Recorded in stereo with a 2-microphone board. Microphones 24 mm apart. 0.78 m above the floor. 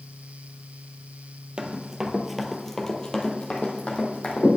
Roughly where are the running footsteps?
Right.